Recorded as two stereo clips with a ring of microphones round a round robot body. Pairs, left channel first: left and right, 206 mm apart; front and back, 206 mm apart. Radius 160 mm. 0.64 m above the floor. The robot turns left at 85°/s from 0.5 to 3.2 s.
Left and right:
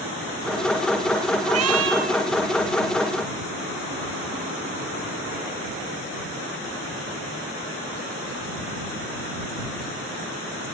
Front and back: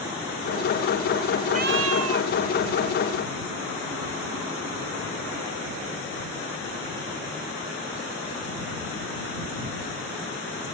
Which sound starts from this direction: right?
A cat meowing, at 1.4 s.